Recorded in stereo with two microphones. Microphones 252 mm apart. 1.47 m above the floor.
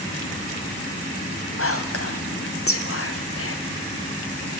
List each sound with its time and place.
1.6 s whispering: 60° left (ahead or behind), 0.7 m